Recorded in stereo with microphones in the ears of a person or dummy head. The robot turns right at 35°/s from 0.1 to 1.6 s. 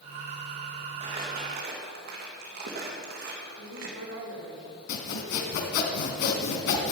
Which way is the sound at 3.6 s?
60° right (ahead or behind).